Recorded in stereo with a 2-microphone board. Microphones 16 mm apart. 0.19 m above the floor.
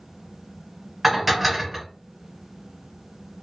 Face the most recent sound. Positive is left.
turn(degrees=-5)  # may be behind; listen again after turning